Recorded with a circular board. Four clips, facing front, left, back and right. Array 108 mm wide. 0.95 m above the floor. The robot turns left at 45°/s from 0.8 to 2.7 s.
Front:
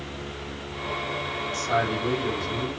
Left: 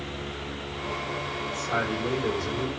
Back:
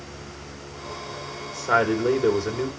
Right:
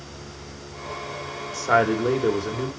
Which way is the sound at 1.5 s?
105° right.